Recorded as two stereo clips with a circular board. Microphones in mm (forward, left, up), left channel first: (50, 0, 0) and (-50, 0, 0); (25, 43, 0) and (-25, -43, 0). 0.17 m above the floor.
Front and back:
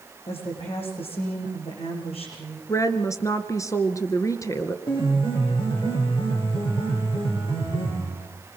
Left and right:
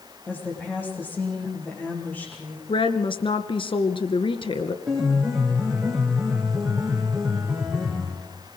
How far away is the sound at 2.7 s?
About 2 m.